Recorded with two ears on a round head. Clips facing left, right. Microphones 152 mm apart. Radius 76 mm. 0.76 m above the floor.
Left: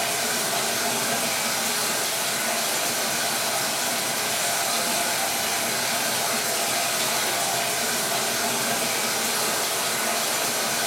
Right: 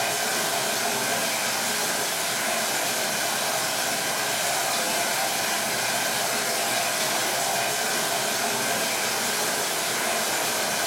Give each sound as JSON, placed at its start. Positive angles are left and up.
{"t": 0.0, "sound": "running water", "side_deg": 85, "distance_m": 1.7}